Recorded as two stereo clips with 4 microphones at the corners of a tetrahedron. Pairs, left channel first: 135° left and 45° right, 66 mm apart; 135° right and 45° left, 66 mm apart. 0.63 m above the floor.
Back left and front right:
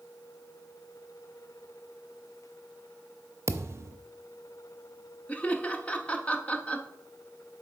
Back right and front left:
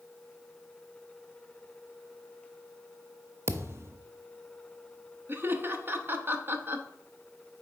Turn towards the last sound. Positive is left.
turn(degrees=75)